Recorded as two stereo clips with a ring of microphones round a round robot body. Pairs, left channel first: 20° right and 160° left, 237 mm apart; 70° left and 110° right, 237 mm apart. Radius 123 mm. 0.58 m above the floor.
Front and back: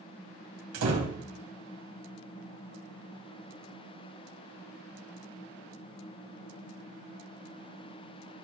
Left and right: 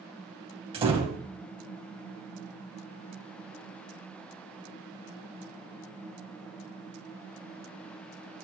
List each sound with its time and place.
0.7 s a door slam: straight behind, 2 m